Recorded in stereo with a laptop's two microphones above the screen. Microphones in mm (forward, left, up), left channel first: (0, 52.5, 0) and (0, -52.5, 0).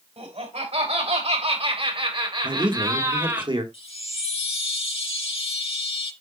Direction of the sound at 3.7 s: 55° left (ahead or behind).